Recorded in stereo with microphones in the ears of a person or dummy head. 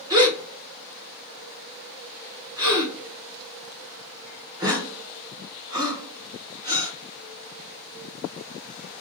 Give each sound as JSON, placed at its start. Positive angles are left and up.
{"t": 0.1, "sound": "a gasp", "side_deg": -20, "distance_m": 1.2}